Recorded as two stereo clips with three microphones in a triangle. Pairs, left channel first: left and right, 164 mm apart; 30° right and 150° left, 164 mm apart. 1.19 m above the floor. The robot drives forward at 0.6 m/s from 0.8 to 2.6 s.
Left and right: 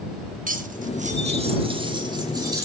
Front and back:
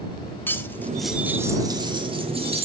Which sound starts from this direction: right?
Cutlery clinking, at 0.5 s.